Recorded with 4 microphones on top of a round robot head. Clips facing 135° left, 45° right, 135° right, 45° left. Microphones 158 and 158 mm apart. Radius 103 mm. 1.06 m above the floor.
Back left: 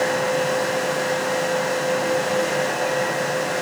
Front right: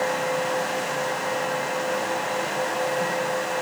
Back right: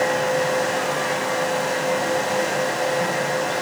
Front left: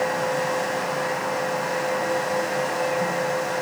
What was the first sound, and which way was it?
Only background noise.